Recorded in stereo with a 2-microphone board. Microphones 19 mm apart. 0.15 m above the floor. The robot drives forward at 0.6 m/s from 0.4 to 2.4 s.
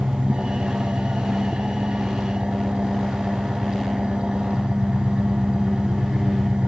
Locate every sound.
0.0 s an engine running: 75° right (ahead or behind), 2.5 m; by 6.7 s 60° right (ahead or behind), 3 m